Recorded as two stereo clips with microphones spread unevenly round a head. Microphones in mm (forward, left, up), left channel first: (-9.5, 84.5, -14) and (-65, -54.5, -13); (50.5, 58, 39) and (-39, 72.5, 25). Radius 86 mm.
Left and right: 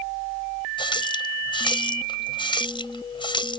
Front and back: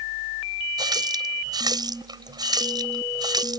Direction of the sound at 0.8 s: 125° left.